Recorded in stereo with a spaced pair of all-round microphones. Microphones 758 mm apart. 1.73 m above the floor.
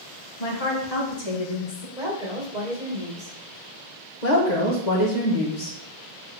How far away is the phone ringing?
No phone ringing in this recording.